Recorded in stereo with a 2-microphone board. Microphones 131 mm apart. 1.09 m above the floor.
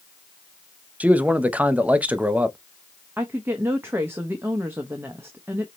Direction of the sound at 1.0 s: 10° right (ahead or behind).